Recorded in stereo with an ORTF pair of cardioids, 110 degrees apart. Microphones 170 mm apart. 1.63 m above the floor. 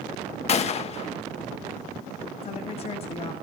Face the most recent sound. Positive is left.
turn(degrees=35)